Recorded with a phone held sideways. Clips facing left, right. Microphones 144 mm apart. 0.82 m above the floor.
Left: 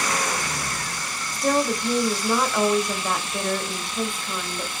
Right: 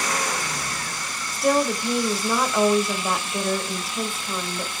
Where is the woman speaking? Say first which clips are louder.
Right 1 dB; 5° right (ahead or behind), 1.3 m.